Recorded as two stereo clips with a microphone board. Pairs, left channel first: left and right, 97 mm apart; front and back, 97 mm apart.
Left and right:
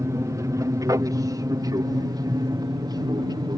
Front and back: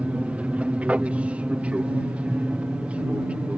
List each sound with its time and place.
0.0 s an aircraft: 115° right; by 3.6 s 110° right